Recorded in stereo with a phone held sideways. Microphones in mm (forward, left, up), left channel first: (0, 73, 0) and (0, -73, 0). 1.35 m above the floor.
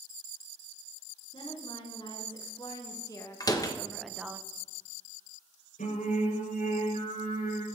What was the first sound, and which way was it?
A woman speaking, 40° left (ahead or behind).